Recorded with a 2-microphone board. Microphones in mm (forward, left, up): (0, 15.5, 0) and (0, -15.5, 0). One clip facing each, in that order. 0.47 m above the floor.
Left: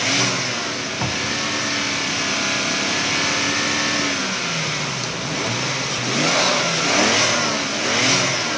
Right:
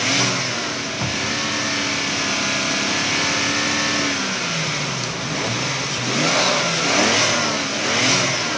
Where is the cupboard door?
20° left (ahead or behind).